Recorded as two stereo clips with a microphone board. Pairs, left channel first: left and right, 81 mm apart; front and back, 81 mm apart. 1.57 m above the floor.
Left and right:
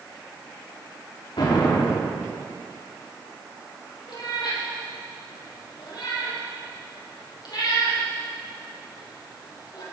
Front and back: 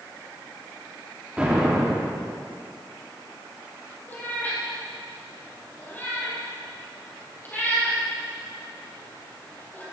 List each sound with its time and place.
1.4 s an explosion: 105° left, 3 m
4.1 s a cat meowing: 65° left, 5 m